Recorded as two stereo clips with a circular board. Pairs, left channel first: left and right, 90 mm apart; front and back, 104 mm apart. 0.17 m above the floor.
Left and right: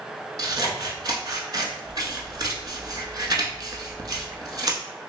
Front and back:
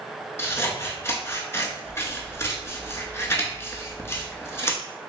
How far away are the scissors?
About 0.6 m.